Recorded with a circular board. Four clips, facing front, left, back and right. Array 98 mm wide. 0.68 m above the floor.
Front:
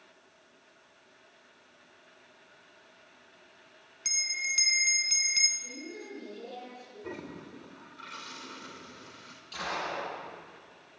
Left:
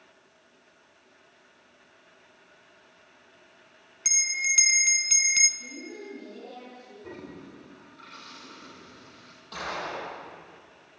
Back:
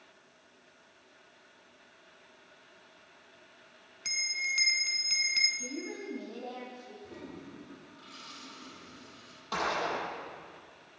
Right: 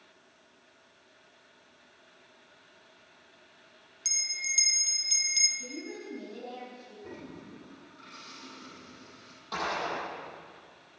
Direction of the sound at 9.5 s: 160° right.